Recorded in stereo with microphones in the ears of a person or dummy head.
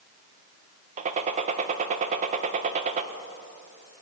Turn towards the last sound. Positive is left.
turn(degrees=-35)  # may be behind; listen again after turning